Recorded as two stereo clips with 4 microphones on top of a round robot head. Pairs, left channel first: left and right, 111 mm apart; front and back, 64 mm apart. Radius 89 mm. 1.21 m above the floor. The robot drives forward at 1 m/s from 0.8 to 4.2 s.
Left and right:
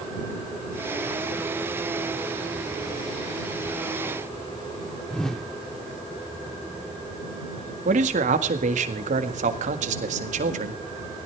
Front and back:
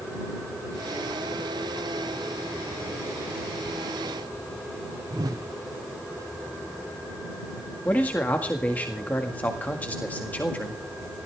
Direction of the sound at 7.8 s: 70° right.